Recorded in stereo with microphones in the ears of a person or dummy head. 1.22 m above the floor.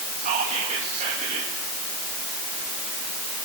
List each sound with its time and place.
0.2 s whispering: 35° right (ahead or behind), 1.9 m